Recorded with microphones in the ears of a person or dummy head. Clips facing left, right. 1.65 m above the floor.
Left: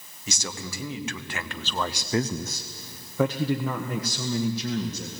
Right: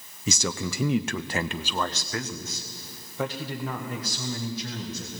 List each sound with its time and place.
0.3 s a man speaking: 65° right (ahead or behind), 1.0 m; by 5.1 s 75° left (ahead or behind), 2 m